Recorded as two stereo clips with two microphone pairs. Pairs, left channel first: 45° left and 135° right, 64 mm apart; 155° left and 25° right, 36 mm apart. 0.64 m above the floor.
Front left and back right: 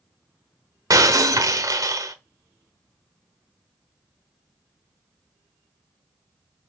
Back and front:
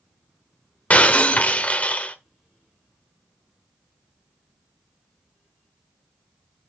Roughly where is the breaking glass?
Behind right.